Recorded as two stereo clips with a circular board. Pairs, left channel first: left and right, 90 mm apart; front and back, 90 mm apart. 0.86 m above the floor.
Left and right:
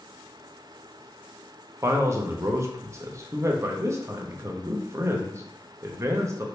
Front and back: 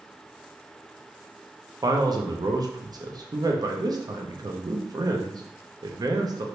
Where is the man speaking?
145° right, 0.6 m.